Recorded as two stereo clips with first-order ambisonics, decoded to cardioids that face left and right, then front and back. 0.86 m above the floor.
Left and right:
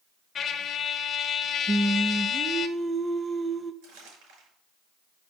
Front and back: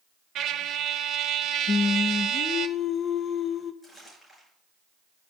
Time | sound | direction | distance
0.3 | a trumpet | 145° left | 0.7 m
1.7 | singing | 25° right | 0.7 m
3.8 | crumpling | 85° right | 5.5 m